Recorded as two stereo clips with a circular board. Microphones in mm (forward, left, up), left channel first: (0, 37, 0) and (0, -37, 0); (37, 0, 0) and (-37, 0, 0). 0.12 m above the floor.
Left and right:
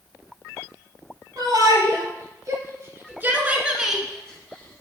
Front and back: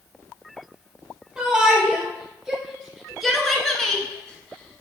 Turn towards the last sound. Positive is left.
turn(degrees=55)